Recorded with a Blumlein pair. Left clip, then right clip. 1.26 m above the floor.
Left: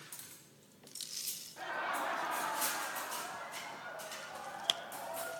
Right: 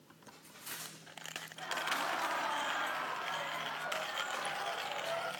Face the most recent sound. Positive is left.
turn(degrees=-55)